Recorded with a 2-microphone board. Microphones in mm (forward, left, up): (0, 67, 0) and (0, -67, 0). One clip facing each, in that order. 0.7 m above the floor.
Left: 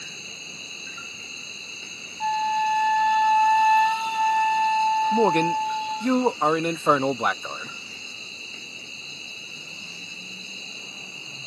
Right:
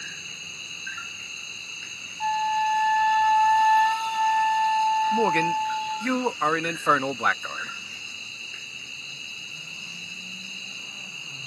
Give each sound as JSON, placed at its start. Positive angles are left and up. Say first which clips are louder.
{"t": 0.0, "sound": "an insect", "louder": "left 2 dB", "side_deg": 35}
{"t": 2.2, "sound": "a flute", "louder": "left 1 dB", "side_deg": 5}
{"t": 5.1, "sound": "a man speaking", "louder": "left 2 dB", "side_deg": 20}